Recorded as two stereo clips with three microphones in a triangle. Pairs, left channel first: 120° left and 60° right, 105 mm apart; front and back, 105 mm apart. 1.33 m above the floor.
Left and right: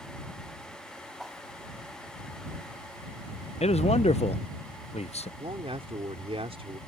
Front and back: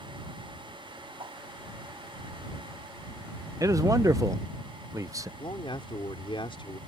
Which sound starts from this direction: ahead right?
A man speaking, at 5.4 s.